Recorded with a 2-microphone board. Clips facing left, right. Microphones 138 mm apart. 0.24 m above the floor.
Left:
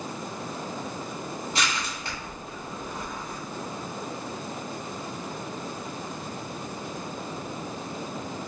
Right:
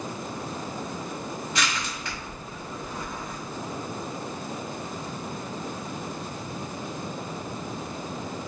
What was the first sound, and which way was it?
Crushing, 35° left (ahead or behind).